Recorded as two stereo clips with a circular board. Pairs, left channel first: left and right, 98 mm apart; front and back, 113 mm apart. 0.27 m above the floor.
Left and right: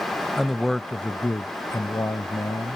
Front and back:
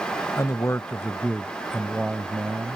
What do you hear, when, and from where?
0.4 s a man speaking: 10° right; by 2.8 s 110° left